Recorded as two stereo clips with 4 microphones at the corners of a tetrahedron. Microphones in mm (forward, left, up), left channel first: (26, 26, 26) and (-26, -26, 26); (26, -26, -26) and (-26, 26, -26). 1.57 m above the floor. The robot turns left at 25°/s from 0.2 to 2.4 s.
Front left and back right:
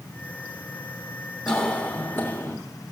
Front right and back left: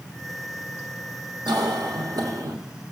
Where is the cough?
135° left, 1.3 m; by 2.5 s 110° left, 1.3 m.